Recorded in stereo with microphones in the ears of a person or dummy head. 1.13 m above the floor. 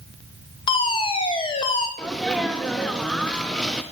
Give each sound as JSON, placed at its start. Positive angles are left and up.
{"t": 0.7, "sound": "a fire alarm", "side_deg": 25, "distance_m": 1.4}
{"t": 2.0, "sound": "a sneeze", "side_deg": 0, "distance_m": 0.7}